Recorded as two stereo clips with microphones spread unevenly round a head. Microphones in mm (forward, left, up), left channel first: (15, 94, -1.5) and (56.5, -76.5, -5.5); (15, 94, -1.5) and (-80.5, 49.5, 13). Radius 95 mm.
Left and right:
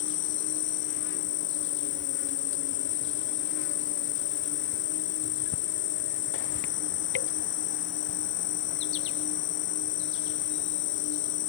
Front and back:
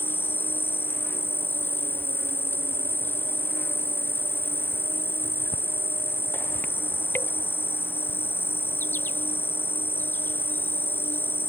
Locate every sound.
0.0 s an insect: 100° left